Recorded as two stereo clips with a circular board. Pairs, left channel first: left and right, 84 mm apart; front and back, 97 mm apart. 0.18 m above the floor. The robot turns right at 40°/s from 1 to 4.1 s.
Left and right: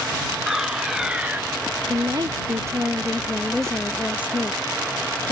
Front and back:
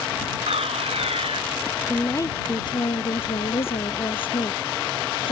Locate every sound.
0.5 s a fire alarm: 175° right; by 1.4 s 155° right
1.9 s a woman speaking: 65° right; by 5.3 s 20° left